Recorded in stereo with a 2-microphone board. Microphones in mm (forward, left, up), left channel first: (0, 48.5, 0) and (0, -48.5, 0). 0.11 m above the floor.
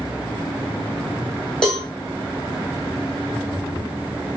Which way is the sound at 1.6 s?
5° left (ahead or behind).